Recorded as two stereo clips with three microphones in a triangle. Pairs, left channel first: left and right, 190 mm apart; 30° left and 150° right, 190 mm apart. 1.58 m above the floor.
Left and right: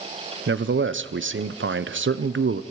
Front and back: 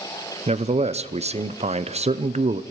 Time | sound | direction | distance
0.5 | a man speaking | 90° right | 0.8 m